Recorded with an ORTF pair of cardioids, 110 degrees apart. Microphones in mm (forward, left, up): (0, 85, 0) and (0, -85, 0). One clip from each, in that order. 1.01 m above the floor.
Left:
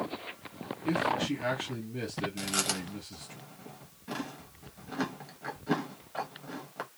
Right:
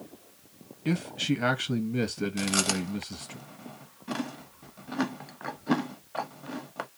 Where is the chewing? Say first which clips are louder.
Right 5 dB; 20° right, 0.9 m.